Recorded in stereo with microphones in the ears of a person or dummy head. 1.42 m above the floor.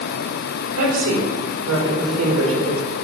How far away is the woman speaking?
About 5.5 m.